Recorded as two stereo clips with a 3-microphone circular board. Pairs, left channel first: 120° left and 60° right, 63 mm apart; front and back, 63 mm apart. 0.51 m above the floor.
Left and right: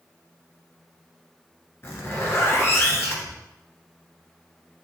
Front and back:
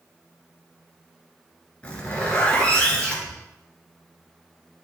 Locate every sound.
1.8 s a zipper: 70° left, 1.6 m